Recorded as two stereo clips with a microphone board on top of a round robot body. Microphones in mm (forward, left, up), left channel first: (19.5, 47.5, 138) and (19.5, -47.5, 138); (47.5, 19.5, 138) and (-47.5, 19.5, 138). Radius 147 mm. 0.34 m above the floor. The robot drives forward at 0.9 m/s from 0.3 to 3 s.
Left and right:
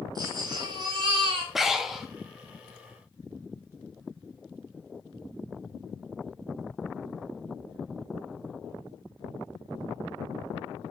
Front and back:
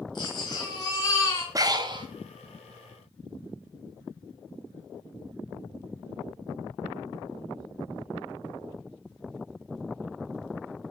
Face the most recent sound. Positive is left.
turn(degrees=180)